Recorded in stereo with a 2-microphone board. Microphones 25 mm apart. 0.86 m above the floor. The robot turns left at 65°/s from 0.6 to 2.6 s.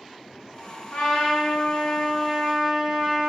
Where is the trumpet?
85° left, 1.7 m; by 3.3 s 25° right, 1.7 m.